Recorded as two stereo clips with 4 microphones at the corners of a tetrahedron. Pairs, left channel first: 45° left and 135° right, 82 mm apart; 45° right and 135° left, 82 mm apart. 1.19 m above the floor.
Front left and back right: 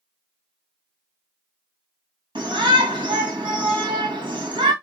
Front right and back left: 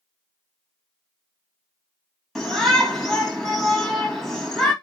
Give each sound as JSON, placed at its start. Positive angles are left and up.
{"t": 2.4, "sound": "a shout", "azimuth_deg": -135, "distance_m": 1.8}